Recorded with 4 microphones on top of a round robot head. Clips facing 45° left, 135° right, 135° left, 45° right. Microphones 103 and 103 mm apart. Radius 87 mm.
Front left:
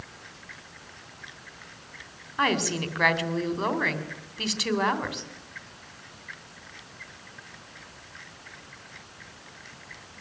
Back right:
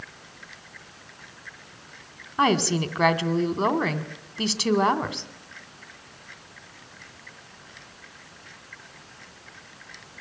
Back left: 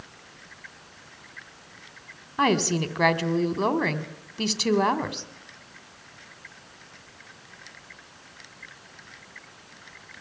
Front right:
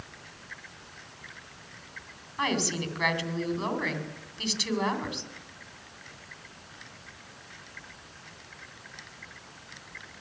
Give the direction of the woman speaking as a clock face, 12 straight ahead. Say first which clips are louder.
Back right 4 dB, back left 7 dB; 7 o'clock.